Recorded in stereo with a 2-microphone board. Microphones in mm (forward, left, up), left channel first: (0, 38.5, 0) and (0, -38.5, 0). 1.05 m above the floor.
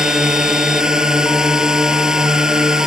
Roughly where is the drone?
Centre.